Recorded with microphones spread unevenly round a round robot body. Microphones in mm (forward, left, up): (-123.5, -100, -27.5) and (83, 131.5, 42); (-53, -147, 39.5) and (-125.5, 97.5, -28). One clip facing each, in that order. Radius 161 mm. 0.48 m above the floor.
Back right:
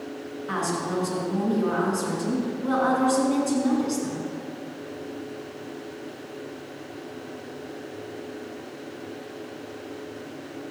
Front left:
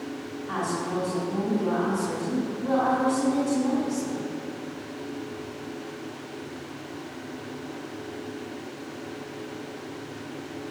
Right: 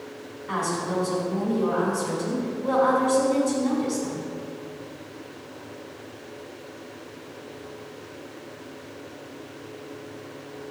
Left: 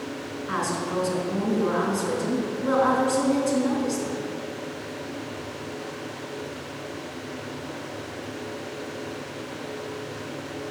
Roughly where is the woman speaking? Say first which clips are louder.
Back right 1 dB, right 2 dB; behind.